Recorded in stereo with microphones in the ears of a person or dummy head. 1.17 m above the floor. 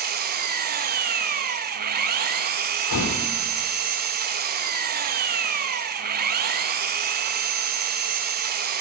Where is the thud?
75° left (ahead or behind), 5 m.